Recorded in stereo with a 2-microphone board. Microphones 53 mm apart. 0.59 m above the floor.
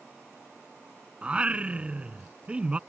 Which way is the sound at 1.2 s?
25° right (ahead or behind).